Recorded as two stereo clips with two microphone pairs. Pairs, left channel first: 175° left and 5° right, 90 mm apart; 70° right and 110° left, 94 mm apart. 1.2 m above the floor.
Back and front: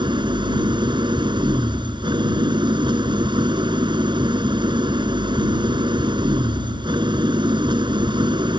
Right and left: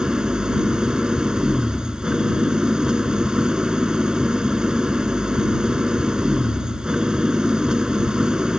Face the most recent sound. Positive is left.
turn(degrees=25)